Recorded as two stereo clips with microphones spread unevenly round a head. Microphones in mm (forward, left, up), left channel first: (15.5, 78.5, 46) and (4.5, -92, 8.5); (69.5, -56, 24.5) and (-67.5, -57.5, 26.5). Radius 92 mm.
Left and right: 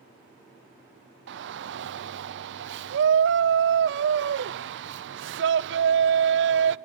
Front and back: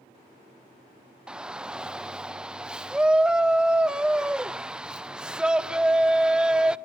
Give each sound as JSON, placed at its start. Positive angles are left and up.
{"t": 1.3, "sound": "a shout", "azimuth_deg": -95, "distance_m": 0.9}